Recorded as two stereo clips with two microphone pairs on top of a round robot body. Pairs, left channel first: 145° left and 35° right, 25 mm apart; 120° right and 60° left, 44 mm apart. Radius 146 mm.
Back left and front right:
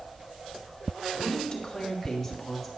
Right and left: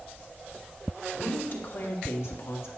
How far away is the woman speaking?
About 1.8 m.